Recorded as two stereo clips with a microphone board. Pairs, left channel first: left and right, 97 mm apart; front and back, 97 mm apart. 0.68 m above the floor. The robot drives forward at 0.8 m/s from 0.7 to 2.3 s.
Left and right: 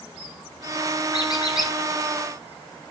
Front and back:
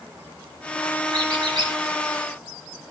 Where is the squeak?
135° left, 2.5 m; by 1.7 s 140° left, 2.5 m.